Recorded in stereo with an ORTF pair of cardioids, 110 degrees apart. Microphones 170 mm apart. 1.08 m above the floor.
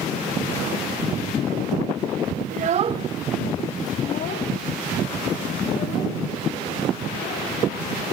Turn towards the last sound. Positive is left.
turn(degrees=75)